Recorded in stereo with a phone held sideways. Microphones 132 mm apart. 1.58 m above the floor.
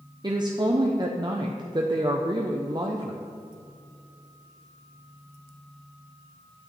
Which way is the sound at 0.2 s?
35° right (ahead or behind).